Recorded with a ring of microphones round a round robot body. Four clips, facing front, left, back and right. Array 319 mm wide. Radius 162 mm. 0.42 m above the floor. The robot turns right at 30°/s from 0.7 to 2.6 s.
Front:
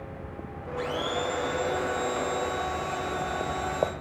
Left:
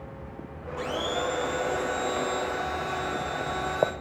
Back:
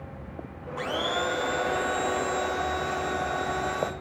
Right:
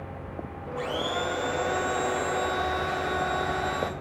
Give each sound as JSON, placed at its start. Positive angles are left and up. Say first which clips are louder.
{"t": 0.8, "sound": "a blender", "louder": "even, back 1 dB", "azimuth_deg": -175, "distance_m": 0.9}